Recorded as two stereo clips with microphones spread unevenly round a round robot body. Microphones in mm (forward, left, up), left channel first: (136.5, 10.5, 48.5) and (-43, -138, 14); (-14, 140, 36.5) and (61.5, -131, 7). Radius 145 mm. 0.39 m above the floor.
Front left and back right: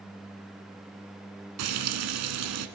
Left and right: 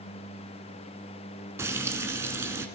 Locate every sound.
1.6 s frying: 155° right, 2.0 m